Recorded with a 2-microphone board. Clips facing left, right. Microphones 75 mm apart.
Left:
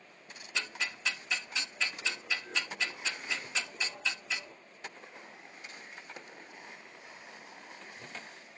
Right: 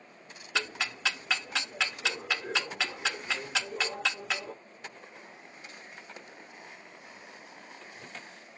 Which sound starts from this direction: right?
Ticking, at 0.6 s.